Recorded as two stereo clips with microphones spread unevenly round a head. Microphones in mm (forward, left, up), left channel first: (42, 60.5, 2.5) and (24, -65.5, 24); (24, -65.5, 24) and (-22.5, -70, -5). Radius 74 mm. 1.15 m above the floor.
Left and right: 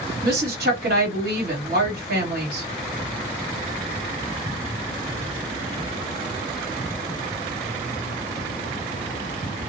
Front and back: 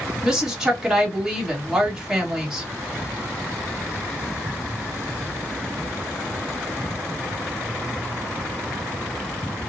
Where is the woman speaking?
110° right, 1.6 m.